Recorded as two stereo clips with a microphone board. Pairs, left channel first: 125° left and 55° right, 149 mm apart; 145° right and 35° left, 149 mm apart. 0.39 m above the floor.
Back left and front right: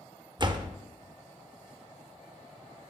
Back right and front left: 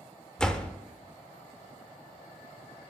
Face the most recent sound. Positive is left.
turn(degrees=-65)